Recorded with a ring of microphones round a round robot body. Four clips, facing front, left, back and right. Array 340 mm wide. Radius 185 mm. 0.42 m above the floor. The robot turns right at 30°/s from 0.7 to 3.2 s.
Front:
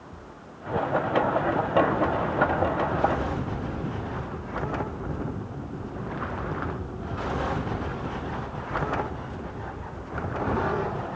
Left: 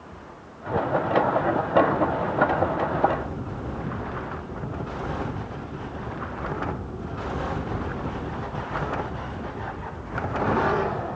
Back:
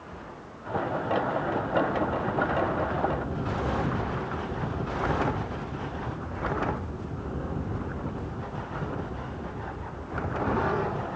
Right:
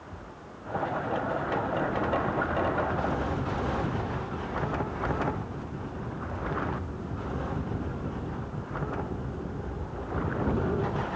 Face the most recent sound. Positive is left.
No sound to turn to.